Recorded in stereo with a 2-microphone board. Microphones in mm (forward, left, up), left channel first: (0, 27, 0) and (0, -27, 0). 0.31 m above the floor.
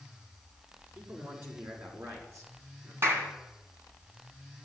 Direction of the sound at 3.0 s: 50° right (ahead or behind).